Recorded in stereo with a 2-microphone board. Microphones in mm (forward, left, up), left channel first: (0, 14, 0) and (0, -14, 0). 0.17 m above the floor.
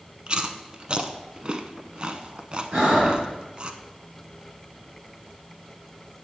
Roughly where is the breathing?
Right.